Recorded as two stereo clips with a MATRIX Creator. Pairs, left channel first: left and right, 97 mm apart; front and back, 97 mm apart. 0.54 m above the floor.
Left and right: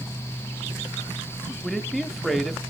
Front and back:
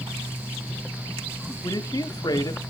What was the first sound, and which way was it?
A man speaking, straight ahead.